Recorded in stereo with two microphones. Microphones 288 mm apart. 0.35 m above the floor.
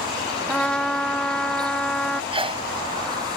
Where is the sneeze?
20° right (ahead or behind).